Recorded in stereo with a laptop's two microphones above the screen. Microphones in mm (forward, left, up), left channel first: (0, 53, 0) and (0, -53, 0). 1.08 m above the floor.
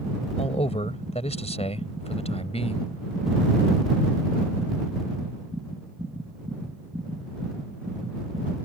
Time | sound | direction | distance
0.4 | a man speaking | 85° left | ?